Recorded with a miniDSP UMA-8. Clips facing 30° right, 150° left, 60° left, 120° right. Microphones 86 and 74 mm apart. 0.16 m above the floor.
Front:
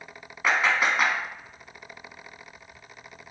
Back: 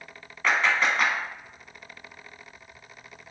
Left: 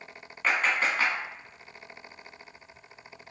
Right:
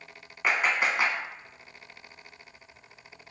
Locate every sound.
0.4 s a clap: 70° right, 0.9 m